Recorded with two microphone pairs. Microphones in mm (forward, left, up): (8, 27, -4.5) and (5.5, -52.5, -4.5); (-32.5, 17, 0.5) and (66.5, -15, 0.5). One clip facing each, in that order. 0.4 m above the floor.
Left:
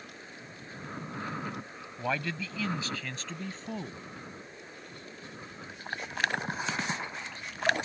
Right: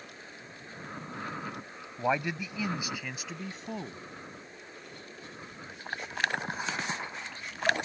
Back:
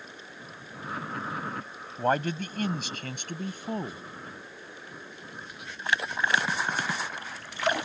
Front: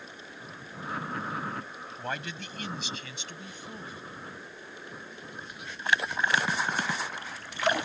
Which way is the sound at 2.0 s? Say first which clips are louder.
Right 3 dB, back 11 dB; 160° right.